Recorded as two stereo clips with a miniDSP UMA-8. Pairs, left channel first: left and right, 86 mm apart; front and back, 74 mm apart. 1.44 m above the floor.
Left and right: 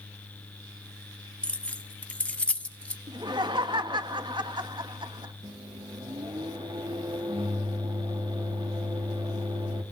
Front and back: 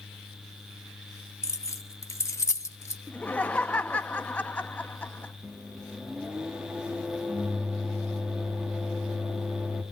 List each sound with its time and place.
1.4 s keys jangling: 20° left, 0.8 m
3.1 s laughter: 70° right, 1.7 m
5.4 s a microwave: 105° right, 2.5 m